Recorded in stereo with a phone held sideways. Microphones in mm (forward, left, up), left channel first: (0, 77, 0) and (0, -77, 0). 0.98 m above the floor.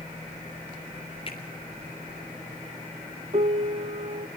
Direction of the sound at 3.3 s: 45° right (ahead or behind).